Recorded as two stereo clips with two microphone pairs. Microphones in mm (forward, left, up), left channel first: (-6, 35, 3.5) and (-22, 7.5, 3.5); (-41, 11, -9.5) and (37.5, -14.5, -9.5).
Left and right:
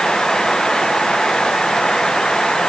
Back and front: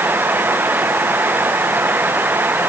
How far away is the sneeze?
No sneeze in this recording.